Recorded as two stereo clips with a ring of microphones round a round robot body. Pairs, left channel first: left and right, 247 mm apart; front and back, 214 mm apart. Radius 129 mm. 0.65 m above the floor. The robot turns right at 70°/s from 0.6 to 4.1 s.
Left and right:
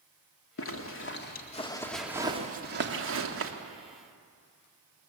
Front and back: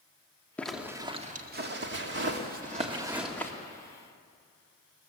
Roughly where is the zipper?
Left.